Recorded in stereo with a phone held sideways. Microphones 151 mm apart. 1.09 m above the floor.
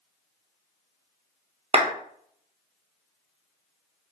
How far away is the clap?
About 0.5 m.